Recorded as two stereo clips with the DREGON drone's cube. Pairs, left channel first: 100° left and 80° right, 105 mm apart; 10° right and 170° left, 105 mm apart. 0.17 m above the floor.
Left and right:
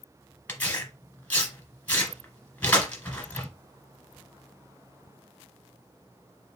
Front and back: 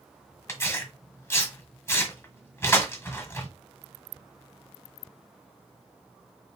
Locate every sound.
0.5 s tearing paper: 35° left, 1.6 m